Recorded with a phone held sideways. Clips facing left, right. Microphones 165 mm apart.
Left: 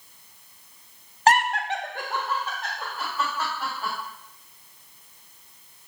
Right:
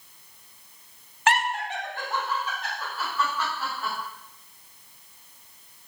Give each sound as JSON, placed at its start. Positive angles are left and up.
{"t": 1.3, "sound": "laughter", "side_deg": 35, "distance_m": 0.5}